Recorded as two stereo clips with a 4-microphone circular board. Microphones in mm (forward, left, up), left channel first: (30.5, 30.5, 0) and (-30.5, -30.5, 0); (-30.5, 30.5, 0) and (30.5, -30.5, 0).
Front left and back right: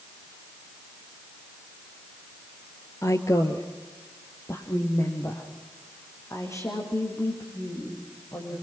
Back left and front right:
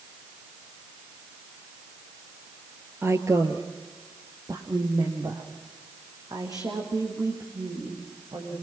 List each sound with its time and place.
3.0 s a woman speaking: 5° left, 1.8 m; by 8.5 s 5° right, 9.5 m